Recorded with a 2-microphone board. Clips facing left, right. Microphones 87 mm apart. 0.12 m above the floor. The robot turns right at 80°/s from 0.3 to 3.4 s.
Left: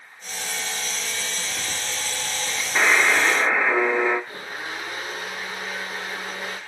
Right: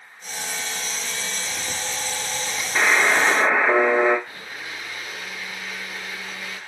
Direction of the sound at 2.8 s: 175° left.